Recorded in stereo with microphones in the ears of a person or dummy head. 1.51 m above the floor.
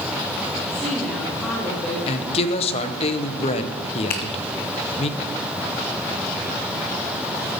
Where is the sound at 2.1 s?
35° left (ahead or behind), 1.1 m.